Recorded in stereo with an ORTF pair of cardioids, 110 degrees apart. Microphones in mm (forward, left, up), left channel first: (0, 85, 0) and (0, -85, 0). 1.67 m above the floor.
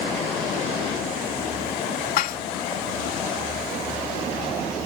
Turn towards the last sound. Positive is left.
turn(degrees=60)